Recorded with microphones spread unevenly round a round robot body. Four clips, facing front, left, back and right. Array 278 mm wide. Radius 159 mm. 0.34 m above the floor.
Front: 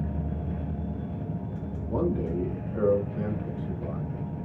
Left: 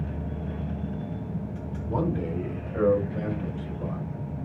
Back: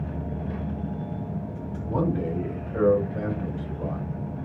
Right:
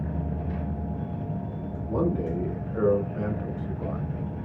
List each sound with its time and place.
1.9 s a man speaking: 140° left, 1.9 m; by 4.5 s 155° right, 1.1 m